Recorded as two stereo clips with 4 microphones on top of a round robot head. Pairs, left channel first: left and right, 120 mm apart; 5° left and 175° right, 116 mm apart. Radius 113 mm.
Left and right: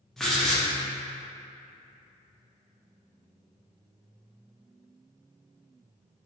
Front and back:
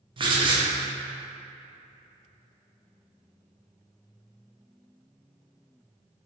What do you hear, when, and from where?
0.2 s writing: 175° left, 0.8 m